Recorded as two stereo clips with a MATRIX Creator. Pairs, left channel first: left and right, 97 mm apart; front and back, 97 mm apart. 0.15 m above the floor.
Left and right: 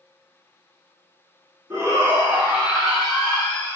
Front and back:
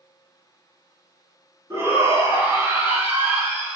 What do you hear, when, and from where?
1.7 s a shout: 140° right, 2 m; by 3.8 s 135° left, 1.6 m